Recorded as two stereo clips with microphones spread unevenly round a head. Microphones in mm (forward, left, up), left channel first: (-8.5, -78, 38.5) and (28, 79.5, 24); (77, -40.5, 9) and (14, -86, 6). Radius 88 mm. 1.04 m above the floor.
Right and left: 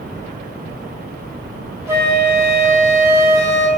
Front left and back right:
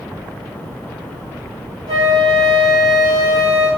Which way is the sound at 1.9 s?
150° left.